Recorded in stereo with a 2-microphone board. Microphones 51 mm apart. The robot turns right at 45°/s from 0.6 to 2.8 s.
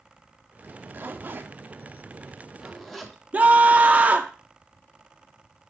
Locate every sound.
0.6 s a zipper: 45° right (ahead or behind), 1.0 m; by 3.2 s 5° left (ahead or behind), 1.0 m
3.3 s a scream: 30° right (ahead or behind), 0.8 m